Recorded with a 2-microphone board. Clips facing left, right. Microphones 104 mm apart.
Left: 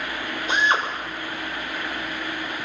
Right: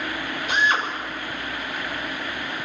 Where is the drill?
25° left (ahead or behind), 6.5 m.